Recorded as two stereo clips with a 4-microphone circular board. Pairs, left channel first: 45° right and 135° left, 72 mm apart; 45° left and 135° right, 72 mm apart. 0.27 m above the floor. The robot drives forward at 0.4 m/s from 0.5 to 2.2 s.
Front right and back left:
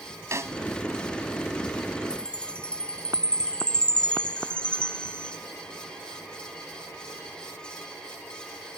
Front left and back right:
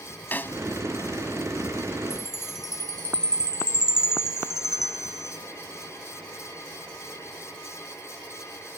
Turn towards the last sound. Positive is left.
turn(degrees=-120)